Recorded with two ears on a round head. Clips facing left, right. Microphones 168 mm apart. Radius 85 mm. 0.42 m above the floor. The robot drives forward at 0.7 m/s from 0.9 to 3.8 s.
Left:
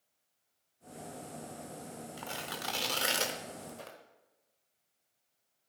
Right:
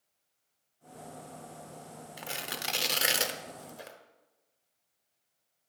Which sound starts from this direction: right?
Tearing paper, at 2.2 s.